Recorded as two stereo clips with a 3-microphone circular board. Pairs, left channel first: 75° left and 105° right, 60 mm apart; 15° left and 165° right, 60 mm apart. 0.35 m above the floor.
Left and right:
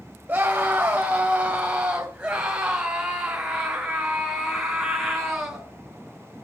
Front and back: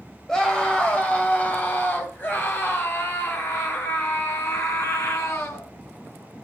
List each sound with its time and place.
0.3 s a scream: 60° right, 1.8 m; by 5.7 s 20° right, 4 m